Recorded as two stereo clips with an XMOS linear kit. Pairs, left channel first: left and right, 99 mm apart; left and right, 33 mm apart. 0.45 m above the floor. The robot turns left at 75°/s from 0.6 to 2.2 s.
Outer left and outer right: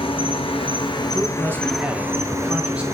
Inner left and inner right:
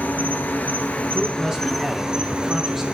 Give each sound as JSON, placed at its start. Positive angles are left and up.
{"t": 0.0, "sound": "an insect", "azimuth_deg": 85, "distance_m": 0.8}
{"t": 1.1, "sound": "a man speaking", "side_deg": -20, "distance_m": 0.7}